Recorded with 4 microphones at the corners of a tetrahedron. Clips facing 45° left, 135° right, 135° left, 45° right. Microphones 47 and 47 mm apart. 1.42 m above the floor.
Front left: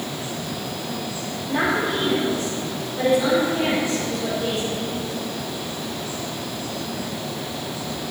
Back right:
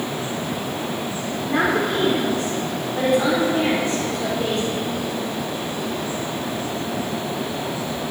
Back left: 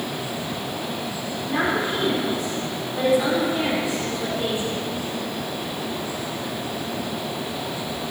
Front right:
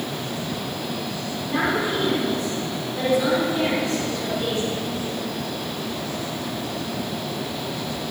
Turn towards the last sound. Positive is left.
turn(degrees=-160)